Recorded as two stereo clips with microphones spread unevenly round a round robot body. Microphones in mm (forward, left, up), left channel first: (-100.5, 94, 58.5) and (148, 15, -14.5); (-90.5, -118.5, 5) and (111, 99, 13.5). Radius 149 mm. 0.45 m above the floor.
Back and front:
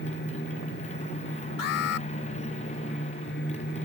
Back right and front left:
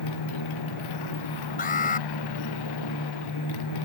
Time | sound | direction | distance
0.0 | a motorcycle | 130° right | ?
1.6 | an alarm | 165° left | ?